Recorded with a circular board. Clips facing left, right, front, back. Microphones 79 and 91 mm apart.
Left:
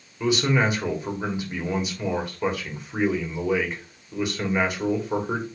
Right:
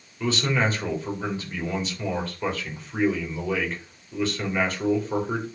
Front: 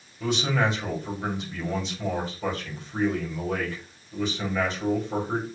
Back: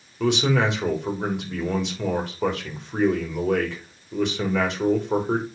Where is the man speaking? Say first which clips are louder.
Left 2 dB, back 4 dB; 165° left, 3.5 m.